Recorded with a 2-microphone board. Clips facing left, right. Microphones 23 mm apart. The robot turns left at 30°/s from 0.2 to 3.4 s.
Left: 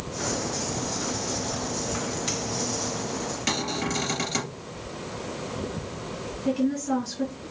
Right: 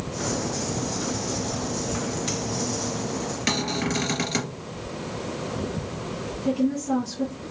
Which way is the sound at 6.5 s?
5° left (ahead or behind).